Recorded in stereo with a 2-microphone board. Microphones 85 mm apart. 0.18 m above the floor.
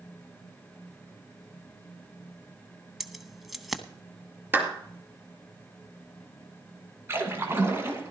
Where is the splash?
30° right (ahead or behind), 2 m.